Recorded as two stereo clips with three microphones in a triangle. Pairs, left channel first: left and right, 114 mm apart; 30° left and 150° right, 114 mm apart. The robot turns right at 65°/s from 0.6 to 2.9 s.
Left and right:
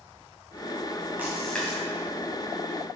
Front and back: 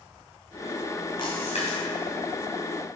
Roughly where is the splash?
Ahead.